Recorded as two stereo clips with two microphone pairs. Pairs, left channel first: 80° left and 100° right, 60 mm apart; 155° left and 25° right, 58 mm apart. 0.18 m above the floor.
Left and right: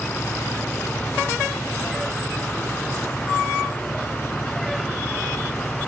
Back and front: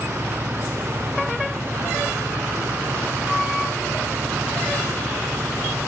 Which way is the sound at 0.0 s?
20° left.